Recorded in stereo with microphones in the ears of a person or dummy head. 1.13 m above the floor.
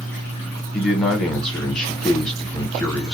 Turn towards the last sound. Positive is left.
turn(degrees=5)  # may be behind; listen again after turning